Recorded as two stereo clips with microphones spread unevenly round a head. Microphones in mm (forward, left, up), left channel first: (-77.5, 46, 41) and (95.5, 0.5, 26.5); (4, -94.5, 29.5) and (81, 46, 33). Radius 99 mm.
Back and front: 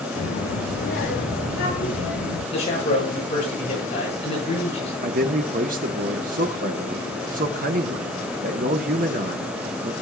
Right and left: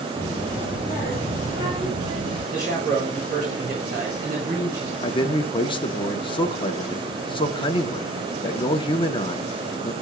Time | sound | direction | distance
0.2 | a child speaking | 145° left | 1.9 m
2.5 | a man speaking | 110° left | 9.5 m
5.0 | a man speaking | 60° right | 1.3 m